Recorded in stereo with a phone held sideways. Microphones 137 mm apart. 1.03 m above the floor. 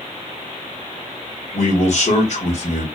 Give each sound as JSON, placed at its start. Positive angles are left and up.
{"t": 1.5, "sound": "a man speaking", "side_deg": 55, "distance_m": 1.4}